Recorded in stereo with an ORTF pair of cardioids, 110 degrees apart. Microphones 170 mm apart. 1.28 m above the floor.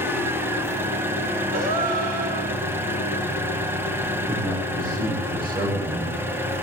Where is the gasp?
60° right, 6 m.